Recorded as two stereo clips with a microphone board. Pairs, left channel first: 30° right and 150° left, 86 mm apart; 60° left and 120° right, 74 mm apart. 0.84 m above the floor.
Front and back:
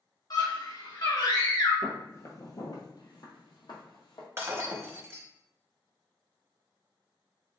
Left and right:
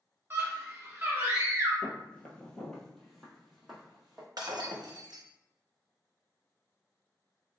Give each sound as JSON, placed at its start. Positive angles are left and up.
{"t": 0.3, "sound": "a scream", "azimuth_deg": -60, "distance_m": 2.0}
{"t": 1.8, "sound": "footsteps", "azimuth_deg": 5, "distance_m": 0.9}
{"t": 4.4, "sound": "breaking glass", "azimuth_deg": -150, "distance_m": 0.8}